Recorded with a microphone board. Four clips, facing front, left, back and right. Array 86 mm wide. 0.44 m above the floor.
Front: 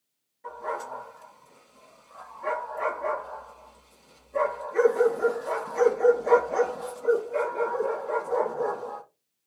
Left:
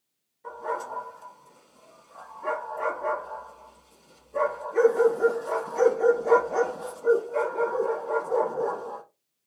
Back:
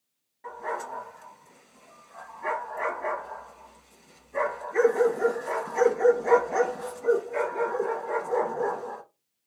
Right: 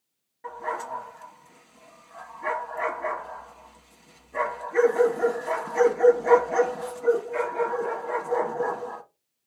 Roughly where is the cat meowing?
I don't hear a cat meowing.